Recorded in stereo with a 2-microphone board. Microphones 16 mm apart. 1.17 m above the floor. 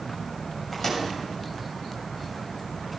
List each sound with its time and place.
0.7 s a microwave: 15° left (ahead or behind), 7 m